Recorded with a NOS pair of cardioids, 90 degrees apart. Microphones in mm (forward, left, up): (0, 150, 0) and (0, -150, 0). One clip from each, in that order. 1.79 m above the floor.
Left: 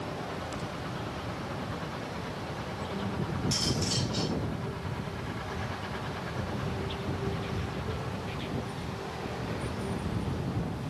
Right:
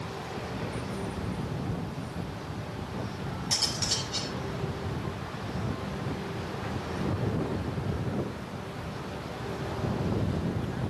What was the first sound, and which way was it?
Cutlery clinking, 30° right.